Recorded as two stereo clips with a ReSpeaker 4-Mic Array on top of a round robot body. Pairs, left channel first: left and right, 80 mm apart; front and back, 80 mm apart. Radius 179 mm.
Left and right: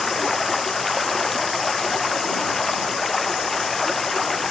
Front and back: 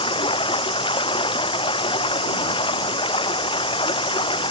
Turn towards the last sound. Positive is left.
turn(degrees=5)